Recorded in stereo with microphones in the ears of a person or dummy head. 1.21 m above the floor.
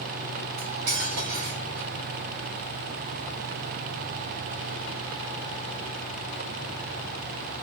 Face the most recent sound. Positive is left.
turn(degrees=-70)  # may be behind; listen again after turning